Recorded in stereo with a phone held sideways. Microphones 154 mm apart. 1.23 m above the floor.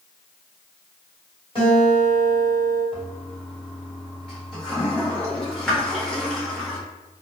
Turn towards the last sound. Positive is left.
turn(degrees=5)  # may be behind; listen again after turning